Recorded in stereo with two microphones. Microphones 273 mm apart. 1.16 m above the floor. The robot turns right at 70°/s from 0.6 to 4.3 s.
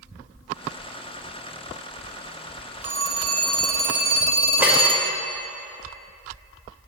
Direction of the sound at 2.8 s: 125° right.